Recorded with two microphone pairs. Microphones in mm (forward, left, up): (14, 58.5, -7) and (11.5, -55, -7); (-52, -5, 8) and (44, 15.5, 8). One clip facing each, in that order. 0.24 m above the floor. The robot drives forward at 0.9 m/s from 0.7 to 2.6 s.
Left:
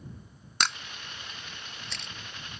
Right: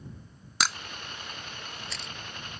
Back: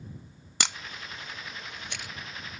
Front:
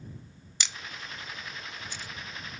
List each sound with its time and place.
0.6 s a camera shutter: straight behind